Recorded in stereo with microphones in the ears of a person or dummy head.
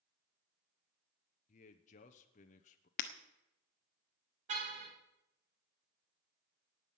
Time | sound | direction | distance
1.5 | a man speaking | 40° left (ahead or behind) | 1.0 m
3.0 | breaking glass | 40° left (ahead or behind) | 1.1 m
4.5 | a car horn | 50° right (ahead or behind) | 3 m